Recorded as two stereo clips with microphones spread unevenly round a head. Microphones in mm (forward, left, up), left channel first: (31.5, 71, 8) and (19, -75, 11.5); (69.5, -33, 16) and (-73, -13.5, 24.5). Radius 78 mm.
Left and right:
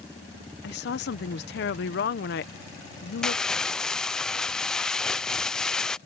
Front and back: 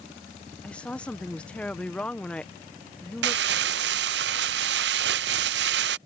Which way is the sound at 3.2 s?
170° left.